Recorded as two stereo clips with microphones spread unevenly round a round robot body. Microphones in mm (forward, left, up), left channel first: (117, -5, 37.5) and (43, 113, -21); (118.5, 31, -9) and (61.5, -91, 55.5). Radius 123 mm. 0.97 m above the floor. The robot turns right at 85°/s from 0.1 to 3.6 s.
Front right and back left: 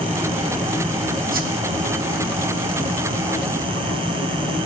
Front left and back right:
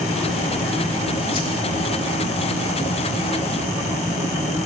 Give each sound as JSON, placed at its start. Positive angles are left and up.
{"t": 1.3, "sound": "a whoosh", "azimuth_deg": 95, "distance_m": 1.2}